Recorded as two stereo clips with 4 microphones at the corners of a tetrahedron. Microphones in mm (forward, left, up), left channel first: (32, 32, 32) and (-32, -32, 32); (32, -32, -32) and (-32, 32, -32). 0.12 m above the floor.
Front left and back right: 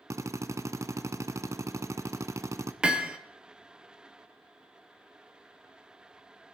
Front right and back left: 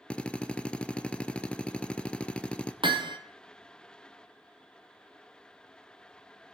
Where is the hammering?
145° left, 1.2 m.